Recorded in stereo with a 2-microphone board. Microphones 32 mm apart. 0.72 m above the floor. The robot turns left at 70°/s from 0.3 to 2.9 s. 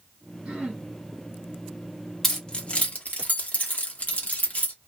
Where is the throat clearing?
35° right (ahead or behind), 1.3 m; by 0.9 s 55° right (ahead or behind), 1.3 m.